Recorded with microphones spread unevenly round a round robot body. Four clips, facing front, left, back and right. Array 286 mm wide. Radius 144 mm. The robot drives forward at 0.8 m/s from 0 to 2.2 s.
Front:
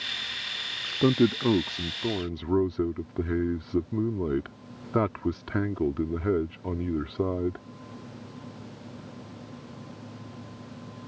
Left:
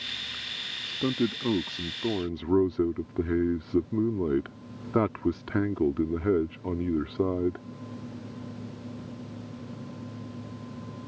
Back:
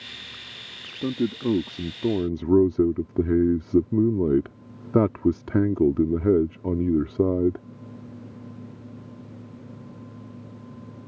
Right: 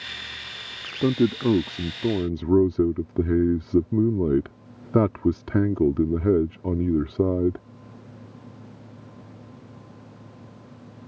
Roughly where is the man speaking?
Ahead right.